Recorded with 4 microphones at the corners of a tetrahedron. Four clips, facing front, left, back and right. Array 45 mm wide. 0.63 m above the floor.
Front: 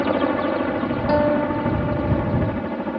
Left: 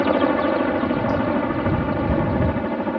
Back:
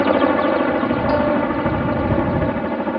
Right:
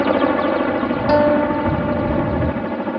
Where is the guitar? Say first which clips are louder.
Right 6 dB, front 2 dB; 80° right.